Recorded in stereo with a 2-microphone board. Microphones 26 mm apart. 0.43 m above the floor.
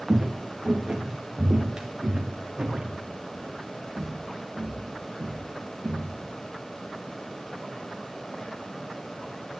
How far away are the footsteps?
About 1.8 m.